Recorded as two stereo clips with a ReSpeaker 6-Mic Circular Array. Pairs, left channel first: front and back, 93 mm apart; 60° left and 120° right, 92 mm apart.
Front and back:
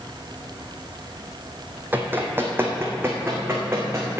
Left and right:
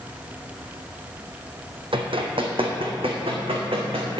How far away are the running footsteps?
About 1.5 m.